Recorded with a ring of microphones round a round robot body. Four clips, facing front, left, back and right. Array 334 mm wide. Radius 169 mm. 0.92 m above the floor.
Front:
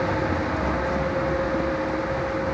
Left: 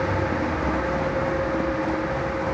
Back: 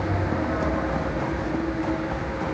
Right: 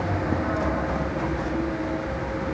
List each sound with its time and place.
Only background noise.